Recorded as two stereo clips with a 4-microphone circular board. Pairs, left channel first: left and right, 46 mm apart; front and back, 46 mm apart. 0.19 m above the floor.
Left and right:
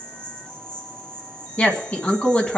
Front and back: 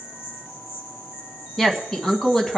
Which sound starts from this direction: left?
A woman speaking, at 1.6 s.